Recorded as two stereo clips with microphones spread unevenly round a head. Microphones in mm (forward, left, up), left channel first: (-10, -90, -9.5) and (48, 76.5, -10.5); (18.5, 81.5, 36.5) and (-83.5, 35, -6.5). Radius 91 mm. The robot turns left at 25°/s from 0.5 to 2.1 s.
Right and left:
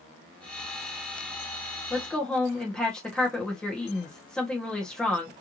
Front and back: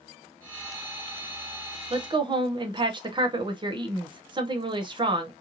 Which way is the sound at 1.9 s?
170° left.